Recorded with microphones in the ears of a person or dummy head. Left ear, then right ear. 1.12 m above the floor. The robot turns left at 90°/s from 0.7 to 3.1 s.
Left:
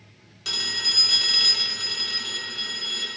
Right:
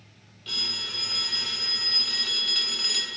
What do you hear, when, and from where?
0.5 s a phone ringing: 120° left, 2.0 m; by 3.1 s 90° right, 2.0 m